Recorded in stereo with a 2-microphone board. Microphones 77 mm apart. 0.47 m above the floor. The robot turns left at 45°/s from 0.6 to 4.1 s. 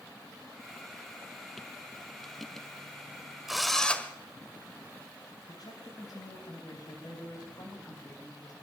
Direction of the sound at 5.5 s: 55° left (ahead or behind).